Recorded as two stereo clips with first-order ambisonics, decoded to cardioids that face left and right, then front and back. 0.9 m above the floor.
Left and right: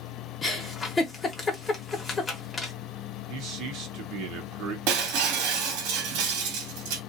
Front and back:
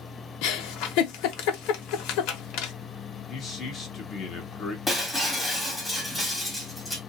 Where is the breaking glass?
85° right, 1.6 m.